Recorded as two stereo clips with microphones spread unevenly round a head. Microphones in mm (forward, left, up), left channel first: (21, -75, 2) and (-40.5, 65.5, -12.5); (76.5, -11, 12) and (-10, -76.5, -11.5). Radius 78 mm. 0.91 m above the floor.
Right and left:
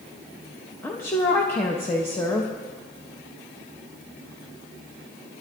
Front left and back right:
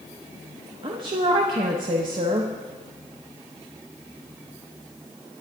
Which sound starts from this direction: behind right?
A woman speaking, at 0.8 s.